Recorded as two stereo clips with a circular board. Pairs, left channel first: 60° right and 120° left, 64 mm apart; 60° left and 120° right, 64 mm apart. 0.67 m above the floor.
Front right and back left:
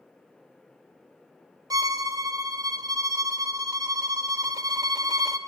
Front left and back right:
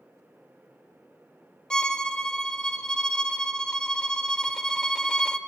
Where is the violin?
140° left, 0.7 m.